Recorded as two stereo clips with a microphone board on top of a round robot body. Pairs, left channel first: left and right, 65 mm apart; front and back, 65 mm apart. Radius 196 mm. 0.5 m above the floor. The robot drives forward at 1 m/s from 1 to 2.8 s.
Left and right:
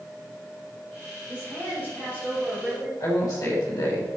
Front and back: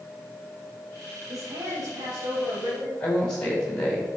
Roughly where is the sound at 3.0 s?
Left.